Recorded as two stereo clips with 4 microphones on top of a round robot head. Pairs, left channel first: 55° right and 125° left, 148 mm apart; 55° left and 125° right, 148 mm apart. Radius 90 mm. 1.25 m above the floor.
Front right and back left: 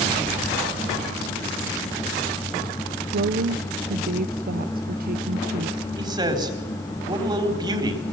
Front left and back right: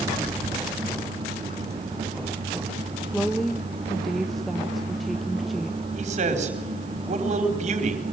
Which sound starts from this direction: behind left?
A woman speaking, at 3.1 s.